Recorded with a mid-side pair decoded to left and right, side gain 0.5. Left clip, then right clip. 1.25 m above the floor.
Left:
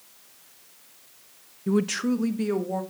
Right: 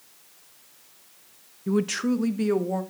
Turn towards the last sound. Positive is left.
turn(degrees=-20)